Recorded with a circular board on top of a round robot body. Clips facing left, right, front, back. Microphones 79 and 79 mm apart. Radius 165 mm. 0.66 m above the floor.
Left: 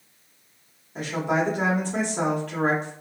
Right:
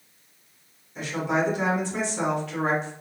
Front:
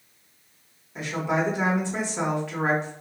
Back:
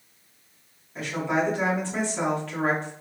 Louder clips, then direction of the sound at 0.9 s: Left 1 dB, even; 70° left.